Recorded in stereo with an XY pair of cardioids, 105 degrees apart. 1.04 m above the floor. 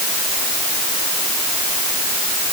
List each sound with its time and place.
Only background noise.